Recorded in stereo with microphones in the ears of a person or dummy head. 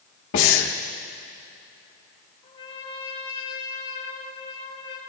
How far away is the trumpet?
About 3.5 m.